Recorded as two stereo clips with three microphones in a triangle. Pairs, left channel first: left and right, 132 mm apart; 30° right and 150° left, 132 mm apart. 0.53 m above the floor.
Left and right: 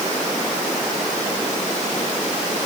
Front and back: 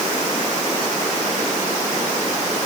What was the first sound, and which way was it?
Only background noise.